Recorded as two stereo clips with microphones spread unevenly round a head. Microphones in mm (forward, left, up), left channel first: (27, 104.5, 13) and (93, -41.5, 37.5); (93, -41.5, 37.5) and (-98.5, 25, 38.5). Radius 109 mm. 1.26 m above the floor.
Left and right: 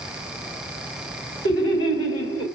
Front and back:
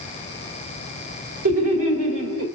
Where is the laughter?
145° left, 2.0 m.